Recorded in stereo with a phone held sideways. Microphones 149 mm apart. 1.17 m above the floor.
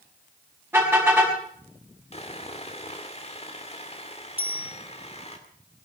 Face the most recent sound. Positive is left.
turn(degrees=-10)  # may be behind; listen again after turning